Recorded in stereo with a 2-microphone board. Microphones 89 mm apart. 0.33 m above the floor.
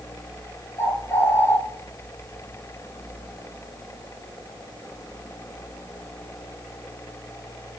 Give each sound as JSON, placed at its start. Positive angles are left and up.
{"t": 0.8, "sound": "a bird", "side_deg": 30, "distance_m": 1.1}